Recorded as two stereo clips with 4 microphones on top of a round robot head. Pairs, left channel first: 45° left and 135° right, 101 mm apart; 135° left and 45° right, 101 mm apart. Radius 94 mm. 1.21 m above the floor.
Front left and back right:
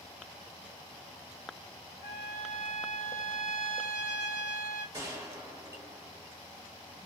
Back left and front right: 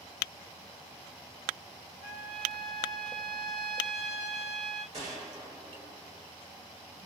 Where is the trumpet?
35° right, 1.0 m.